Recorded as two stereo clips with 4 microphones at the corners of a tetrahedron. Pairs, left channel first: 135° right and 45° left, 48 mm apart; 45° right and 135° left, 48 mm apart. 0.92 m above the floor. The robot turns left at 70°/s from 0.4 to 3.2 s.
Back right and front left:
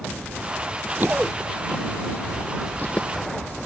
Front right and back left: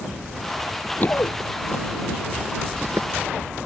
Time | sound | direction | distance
1.0 | running footsteps | 5° left | ?